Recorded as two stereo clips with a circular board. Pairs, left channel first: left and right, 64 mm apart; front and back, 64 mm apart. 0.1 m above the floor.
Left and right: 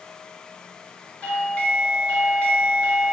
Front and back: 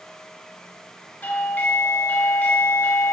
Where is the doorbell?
40° left, 2.5 m.